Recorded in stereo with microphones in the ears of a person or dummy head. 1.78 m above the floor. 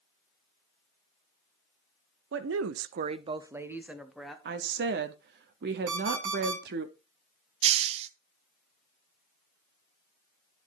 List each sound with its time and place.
2.3 s a woman speaking: 75° right (ahead or behind), 0.6 m; by 4.3 s centre (ahead or behind), 1.3 m
4.5 s a woman speaking: 60° right (ahead or behind), 0.7 m
5.9 s an alarm clock: 70° right (ahead or behind), 3 m
7.6 s a hiss: 35° right (ahead or behind), 0.5 m